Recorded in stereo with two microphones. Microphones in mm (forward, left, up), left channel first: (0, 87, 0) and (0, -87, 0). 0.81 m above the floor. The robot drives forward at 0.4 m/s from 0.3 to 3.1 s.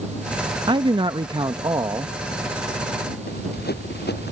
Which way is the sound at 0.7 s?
25° right (ahead or behind).